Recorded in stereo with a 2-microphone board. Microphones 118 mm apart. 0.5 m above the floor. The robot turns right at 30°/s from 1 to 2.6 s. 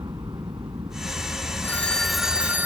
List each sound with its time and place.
0.0 s a helicopter: 35° right (ahead or behind); by 2.7 s 5° left (ahead or behind)
1.6 s a phone ringing: 15° left (ahead or behind); by 2.7 s 15° right (ahead or behind)